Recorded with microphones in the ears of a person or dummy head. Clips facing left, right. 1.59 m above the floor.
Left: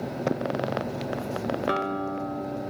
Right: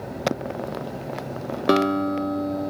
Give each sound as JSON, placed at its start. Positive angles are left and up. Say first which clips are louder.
{"t": 1.7, "sound": "a guitar", "louder": "right 8 dB", "side_deg": -55, "distance_m": 1.9}